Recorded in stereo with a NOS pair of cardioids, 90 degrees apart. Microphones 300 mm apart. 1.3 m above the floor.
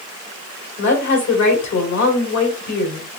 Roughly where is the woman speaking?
Ahead left.